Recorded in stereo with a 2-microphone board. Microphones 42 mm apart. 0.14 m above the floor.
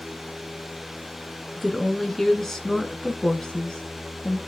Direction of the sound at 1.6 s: Centre (ahead or behind).